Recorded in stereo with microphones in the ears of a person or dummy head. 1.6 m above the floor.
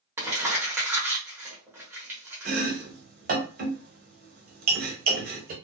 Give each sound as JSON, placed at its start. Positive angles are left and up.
{"t": 0.2, "sound": "crumpling", "side_deg": -10, "distance_m": 1.1}
{"t": 2.5, "sound": "chopping", "side_deg": -50, "distance_m": 0.9}